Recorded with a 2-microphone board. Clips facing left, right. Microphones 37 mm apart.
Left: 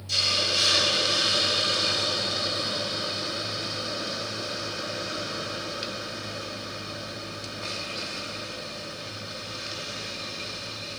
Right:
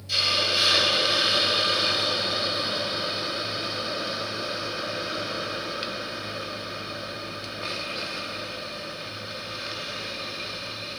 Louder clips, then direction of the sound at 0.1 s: Right 2 dB; 15° right (ahead or behind).